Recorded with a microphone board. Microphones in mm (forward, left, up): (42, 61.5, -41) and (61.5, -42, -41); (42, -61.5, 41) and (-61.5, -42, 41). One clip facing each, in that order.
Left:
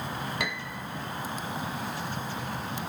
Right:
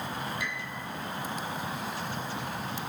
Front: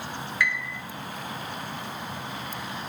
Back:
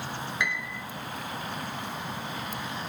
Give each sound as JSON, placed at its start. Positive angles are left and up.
{"t": 0.4, "sound": "a piano", "azimuth_deg": 100, "distance_m": 1.0}